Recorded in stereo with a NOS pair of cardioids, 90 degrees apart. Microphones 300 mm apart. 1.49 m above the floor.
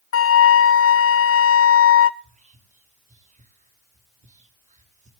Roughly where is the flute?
Ahead left.